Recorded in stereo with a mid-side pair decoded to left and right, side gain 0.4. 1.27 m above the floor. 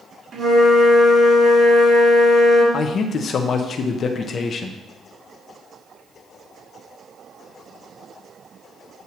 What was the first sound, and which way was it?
A flute, 45° right.